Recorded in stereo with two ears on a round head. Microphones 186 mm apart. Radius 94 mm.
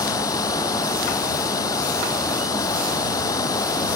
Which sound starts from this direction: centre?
Running water, at 0.0 s.